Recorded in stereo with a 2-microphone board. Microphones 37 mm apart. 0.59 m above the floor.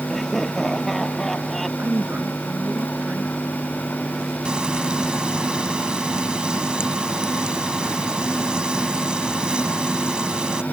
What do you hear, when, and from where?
0.1 s laughter: 5° left (ahead or behind); by 1.7 s 10° left (ahead or behind)
1.8 s a woman speaking: 55° right (ahead or behind)
4.5 s frying: 25° right (ahead or behind)